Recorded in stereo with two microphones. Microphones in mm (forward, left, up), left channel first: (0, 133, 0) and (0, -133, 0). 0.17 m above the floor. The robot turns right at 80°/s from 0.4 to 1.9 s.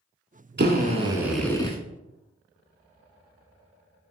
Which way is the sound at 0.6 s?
65° right.